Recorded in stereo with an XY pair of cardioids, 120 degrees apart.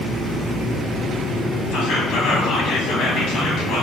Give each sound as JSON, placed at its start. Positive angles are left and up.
{"t": 1.7, "sound": "whispering", "azimuth_deg": 70, "distance_m": 0.9}